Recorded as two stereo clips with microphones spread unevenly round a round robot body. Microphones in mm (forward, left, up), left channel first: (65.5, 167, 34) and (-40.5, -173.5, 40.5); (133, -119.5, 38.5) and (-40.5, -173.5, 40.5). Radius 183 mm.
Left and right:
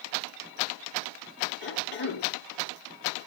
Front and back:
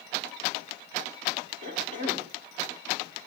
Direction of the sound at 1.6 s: 130° left.